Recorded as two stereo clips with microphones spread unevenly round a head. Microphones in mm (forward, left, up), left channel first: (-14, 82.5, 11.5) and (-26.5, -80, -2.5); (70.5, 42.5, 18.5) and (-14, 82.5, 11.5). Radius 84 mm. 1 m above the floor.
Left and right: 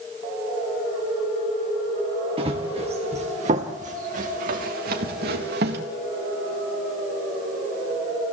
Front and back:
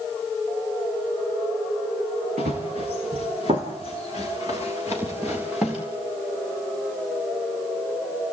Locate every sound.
2.4 s running footsteps: 150° right, 5.5 m; by 5.8 s 120° right, 4.5 m